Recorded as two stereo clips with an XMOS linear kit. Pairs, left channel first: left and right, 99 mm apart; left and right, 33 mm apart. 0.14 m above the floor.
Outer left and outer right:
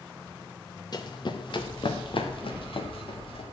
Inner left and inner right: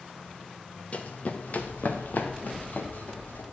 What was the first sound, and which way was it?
Running footsteps, 45° left (ahead or behind).